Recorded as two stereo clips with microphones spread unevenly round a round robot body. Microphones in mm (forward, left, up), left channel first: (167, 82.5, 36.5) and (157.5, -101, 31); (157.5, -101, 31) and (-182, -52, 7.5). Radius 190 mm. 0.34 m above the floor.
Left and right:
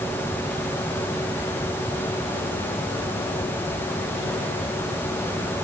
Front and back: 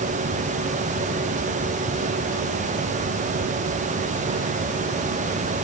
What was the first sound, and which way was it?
Only background noise.